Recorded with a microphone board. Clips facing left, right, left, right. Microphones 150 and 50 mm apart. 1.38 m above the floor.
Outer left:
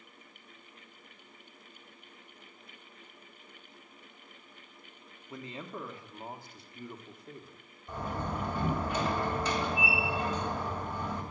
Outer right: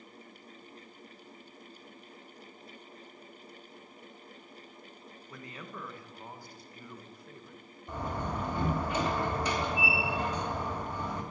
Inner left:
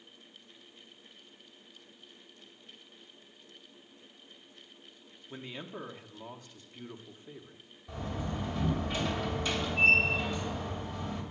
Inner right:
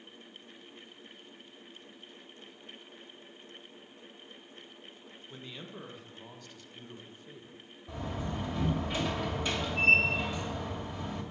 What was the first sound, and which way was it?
A man speaking, 25° left (ahead or behind).